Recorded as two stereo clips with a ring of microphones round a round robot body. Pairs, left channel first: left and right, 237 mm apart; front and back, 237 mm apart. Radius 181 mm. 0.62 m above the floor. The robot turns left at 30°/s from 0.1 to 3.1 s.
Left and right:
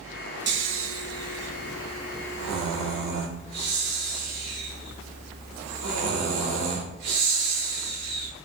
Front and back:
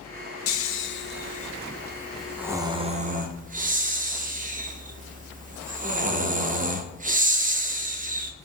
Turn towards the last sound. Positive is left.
turn(degrees=-115)